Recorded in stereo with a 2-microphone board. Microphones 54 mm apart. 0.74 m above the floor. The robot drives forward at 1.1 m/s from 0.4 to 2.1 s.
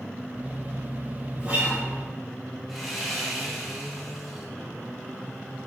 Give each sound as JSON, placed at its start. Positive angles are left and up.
{"t": 1.4, "sound": "a guitar", "side_deg": -35, "distance_m": 1.9}
{"t": 2.7, "sound": "sawing", "side_deg": 0, "distance_m": 1.3}